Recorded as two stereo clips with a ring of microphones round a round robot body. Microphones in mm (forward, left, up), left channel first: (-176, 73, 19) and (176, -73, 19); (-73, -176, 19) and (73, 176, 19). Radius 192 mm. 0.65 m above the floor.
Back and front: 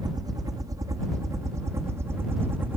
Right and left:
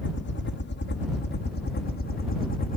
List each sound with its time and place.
0.0 s a helicopter: 95° right; by 2.8 s 100° right